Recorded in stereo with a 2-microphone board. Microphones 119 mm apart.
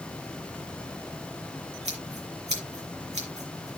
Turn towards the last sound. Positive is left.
turn(degrees=-70)  # may be behind; listen again after turning